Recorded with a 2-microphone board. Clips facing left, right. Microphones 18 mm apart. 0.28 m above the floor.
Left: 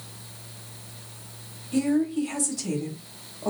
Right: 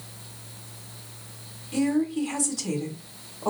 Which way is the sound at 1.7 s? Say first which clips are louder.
Left 1 dB; 5° right (ahead or behind).